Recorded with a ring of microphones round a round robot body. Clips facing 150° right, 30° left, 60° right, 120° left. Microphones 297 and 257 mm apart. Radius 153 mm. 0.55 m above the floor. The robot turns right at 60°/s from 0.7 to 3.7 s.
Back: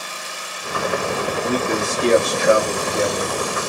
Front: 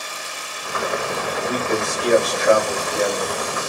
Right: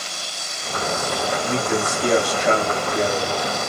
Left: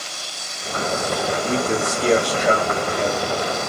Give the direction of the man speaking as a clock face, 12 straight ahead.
8 o'clock.